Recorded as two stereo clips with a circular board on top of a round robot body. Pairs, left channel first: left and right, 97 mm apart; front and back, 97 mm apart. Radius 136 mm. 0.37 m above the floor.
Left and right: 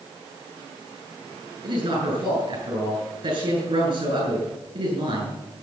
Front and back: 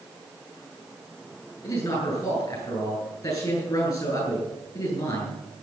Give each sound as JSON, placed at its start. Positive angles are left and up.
{"t": 1.6, "sound": "a man speaking", "azimuth_deg": -50, "distance_m": 9.0}